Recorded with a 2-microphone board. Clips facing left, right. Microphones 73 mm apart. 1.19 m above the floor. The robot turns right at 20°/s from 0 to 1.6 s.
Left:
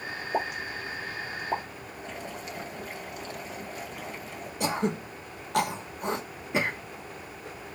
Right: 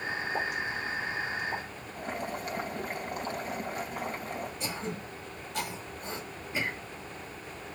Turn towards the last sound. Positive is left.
turn(degrees=70)  # may be behind; listen again after turning